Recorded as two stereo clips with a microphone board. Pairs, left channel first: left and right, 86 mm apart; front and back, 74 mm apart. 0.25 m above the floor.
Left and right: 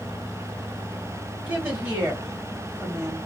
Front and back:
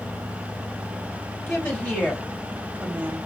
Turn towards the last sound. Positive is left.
turn(degrees=-160)